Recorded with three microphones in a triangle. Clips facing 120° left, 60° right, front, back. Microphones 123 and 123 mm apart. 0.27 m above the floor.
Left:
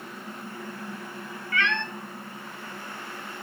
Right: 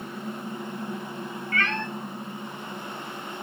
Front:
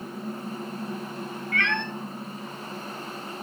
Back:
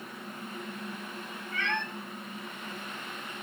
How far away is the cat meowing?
About 1.4 m.